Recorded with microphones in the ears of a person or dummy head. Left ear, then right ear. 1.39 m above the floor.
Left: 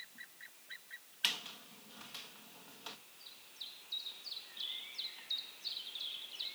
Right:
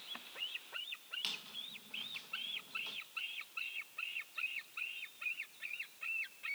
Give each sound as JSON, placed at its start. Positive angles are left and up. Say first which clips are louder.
{"t": 1.2, "sound": "a squeak", "louder": "left 8 dB", "side_deg": 20, "distance_m": 1.0}